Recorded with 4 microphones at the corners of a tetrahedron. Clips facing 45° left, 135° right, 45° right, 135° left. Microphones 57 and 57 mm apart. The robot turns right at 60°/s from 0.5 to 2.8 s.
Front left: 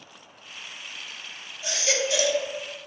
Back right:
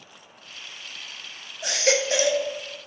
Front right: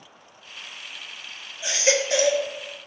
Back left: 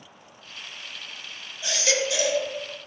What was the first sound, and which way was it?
A baby crying, 120° right.